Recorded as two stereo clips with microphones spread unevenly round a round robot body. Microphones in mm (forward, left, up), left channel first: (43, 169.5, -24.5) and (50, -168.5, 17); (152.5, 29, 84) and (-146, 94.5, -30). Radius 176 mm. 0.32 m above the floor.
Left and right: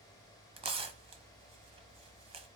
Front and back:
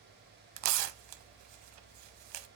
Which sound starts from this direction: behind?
Tearing paper, at 0.6 s.